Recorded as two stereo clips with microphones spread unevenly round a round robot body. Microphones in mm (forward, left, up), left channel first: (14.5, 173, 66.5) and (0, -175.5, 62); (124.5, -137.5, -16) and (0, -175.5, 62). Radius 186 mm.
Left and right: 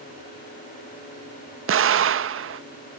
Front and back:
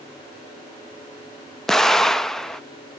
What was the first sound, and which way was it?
An explosion, 45° right.